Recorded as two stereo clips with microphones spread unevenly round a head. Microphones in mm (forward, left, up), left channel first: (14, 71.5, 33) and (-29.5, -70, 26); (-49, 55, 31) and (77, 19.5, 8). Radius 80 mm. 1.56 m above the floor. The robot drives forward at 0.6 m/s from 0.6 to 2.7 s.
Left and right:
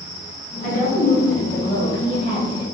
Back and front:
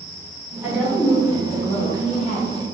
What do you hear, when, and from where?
0.6 s a woman speaking: 70° left, 0.9 m; by 2.6 s 140° left, 1.2 m